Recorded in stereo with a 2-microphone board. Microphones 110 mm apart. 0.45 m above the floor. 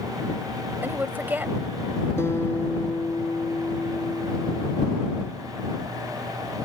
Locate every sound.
0.8 s a woman speaking: 15° right (ahead or behind)
2.2 s a guitar: 20° left (ahead or behind)